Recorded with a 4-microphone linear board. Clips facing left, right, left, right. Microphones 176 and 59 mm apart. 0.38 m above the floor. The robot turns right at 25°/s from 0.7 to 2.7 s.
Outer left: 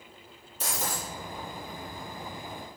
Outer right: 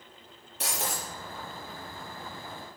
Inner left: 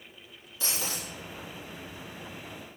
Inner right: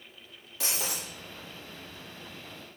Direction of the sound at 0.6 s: 70° right (ahead or behind).